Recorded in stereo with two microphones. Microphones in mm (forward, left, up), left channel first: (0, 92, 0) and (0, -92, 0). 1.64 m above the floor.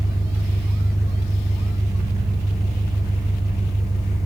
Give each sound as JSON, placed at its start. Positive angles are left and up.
{"t": 0.0, "sound": "an engine running", "side_deg": -15, "distance_m": 0.8}